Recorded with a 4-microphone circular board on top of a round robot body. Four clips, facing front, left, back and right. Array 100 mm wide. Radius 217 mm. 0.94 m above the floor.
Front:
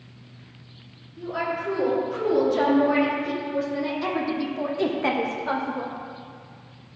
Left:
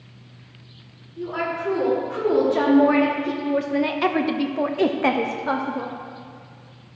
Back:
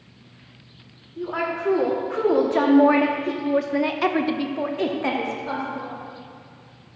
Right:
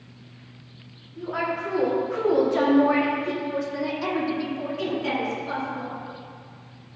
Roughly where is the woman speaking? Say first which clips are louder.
Left 1 dB, back 2 dB; behind.